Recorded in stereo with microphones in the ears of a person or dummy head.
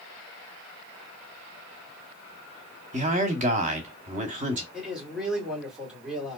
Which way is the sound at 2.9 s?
40° right (ahead or behind).